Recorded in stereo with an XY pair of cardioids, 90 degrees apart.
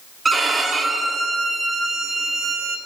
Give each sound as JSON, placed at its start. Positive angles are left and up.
{"t": 0.2, "sound": "a violin", "azimuth_deg": -30, "distance_m": 1.0}